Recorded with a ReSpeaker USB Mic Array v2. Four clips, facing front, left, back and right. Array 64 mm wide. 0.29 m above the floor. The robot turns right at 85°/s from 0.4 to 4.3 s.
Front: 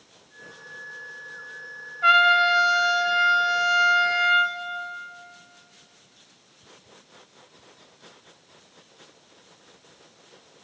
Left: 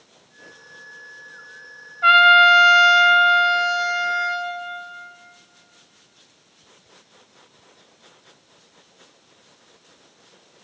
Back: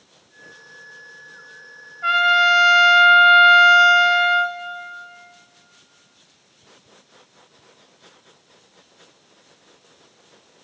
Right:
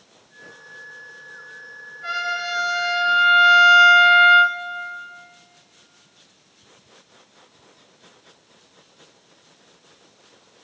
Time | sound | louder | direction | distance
2.0 | a trumpet | left 15 dB, back 1 dB | 75° left | 1.0 m